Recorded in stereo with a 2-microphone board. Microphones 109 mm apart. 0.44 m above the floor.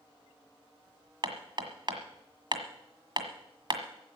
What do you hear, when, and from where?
1.2 s hammering: 50° right (ahead or behind), 1.5 m